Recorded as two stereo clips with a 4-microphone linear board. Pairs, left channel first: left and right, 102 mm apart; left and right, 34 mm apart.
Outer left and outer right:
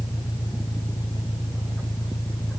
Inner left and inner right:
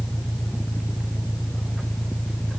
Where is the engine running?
75° left (ahead or behind).